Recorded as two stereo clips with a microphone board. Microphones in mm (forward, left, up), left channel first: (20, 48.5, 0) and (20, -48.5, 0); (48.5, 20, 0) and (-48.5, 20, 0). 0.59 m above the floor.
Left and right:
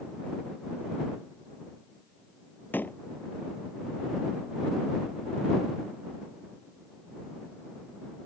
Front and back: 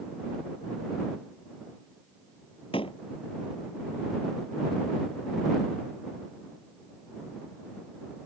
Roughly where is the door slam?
Ahead.